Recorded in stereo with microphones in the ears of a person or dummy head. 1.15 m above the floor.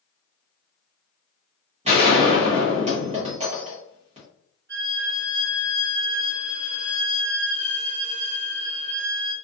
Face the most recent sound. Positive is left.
turn(degrees=-50)  # may be behind; listen again after turning